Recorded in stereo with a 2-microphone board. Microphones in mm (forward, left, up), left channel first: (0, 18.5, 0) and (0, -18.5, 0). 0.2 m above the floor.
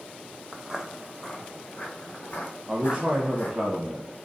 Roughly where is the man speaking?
Centre.